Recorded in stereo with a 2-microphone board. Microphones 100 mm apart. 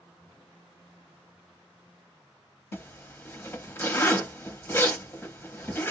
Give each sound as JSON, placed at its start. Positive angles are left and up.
{"t": 2.7, "sound": "a zipper", "side_deg": 25, "distance_m": 0.6}